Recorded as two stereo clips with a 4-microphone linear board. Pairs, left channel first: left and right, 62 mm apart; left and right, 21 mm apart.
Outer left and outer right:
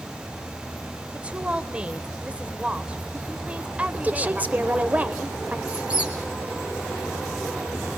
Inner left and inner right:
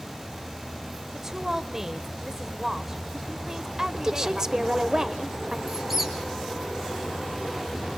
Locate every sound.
1.1 s a woman speaking: 20° right (ahead or behind), 1.1 m
3.9 s a woman speaking: 25° right (ahead or behind), 1.1 m
5.7 s a squeak: 20° right (ahead or behind), 4.5 m